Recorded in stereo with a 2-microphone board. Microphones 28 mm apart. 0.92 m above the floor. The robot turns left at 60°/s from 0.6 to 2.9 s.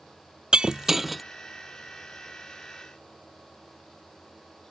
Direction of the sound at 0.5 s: 145° right.